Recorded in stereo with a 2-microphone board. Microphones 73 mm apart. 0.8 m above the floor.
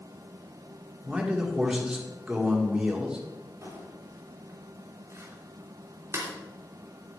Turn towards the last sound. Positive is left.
turn(degrees=-40)  # may be behind; listen again after turning